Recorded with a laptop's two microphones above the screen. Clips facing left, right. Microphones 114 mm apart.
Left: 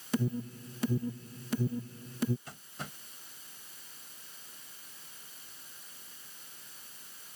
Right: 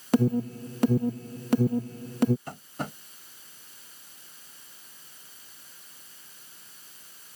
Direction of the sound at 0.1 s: 60° right (ahead or behind).